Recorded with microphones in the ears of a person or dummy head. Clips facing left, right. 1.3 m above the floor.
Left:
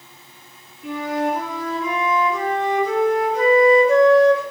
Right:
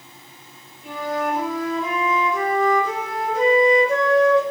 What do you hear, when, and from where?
0.8 s a flute: 55° left (ahead or behind), 1.2 m